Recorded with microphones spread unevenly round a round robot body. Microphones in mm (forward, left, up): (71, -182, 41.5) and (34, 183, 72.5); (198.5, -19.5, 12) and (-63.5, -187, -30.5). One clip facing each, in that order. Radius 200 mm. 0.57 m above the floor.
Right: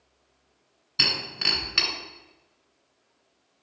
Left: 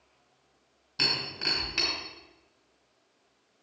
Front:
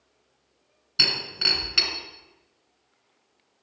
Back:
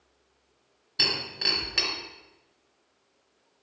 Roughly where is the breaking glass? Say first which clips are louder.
Right 1 dB, even; ahead right.